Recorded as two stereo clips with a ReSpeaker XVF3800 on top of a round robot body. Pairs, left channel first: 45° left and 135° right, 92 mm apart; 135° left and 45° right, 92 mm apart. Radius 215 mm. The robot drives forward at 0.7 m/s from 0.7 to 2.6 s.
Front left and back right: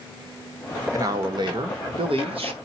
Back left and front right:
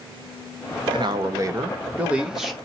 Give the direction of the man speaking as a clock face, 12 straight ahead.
3 o'clock.